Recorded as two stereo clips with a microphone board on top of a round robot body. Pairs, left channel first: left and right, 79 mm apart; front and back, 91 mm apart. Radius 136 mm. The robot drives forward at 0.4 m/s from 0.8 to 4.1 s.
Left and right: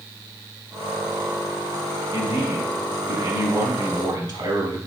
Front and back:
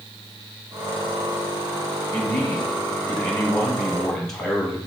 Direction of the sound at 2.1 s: 65° right.